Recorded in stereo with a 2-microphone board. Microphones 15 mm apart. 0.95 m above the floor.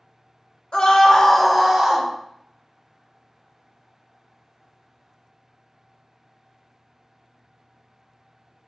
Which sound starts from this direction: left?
A scream, at 0.7 s.